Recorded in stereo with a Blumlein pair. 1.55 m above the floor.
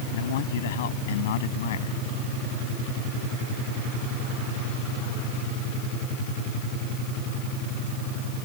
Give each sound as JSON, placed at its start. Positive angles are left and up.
{"t": 0.1, "sound": "a man speaking", "azimuth_deg": 55}